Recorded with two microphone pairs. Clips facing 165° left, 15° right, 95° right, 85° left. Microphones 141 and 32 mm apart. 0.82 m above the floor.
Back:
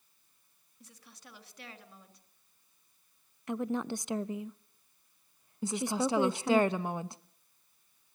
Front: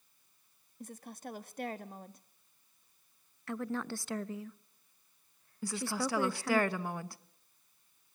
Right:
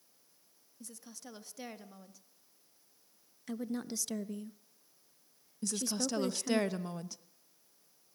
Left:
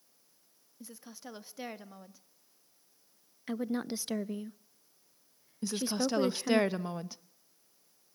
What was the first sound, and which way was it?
A woman speaking, 20° left.